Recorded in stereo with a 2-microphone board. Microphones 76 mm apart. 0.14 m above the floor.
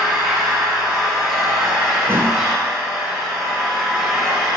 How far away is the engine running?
About 0.9 m.